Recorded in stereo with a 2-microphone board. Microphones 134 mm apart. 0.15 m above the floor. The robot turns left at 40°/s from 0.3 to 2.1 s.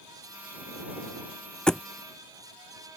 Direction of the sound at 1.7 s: 5° left (ahead or behind).